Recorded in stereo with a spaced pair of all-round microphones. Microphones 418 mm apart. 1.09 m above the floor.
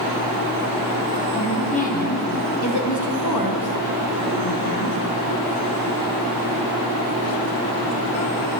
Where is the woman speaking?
10° left (ahead or behind), 2 m; by 5.0 s 75° left (ahead or behind), 1.8 m.